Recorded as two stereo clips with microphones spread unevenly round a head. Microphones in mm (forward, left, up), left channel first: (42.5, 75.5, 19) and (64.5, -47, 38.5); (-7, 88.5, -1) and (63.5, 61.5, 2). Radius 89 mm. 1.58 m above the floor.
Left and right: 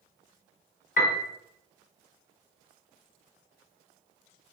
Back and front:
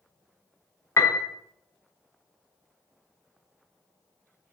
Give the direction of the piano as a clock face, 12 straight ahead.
8 o'clock.